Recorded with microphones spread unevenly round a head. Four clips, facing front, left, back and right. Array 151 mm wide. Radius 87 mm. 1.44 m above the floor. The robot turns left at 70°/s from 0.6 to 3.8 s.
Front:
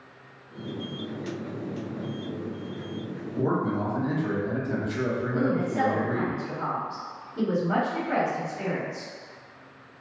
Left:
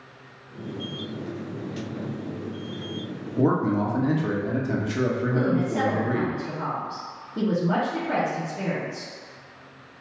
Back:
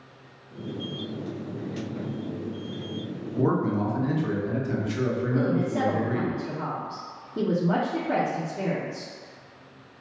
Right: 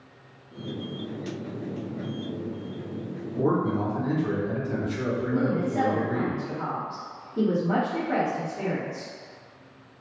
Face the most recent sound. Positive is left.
turn(degrees=165)